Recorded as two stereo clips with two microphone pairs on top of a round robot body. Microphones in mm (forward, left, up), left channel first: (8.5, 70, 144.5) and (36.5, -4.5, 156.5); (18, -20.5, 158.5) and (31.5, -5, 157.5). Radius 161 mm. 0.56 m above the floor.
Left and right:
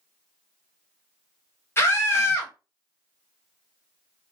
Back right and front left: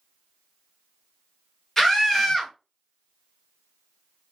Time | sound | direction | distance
1.8 | a scream | 160° left | 1.4 m